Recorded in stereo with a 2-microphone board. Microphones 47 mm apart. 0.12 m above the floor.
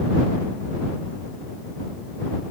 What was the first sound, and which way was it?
Only background noise.